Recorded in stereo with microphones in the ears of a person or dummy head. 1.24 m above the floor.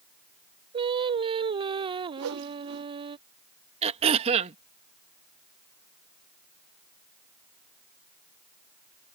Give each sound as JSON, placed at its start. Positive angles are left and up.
{"t": 0.7, "sound": "singing", "side_deg": -25}
{"t": 2.2, "sound": "a whoosh", "side_deg": -80}
{"t": 3.8, "sound": "throat clearing", "side_deg": -35}